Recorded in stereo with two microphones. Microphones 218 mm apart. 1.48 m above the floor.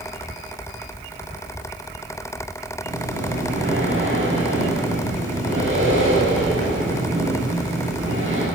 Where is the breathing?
65° right (ahead or behind), 9.5 m.